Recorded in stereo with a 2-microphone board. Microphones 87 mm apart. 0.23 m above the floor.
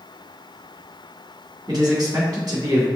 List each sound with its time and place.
1.7 s a man speaking: 50° right (ahead or behind), 1.8 m